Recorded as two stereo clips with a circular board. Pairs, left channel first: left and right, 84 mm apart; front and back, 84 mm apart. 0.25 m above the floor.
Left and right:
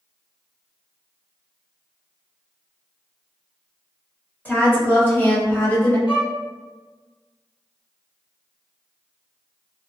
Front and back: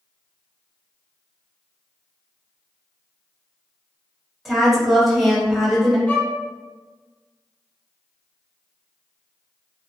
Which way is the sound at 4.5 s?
90° left.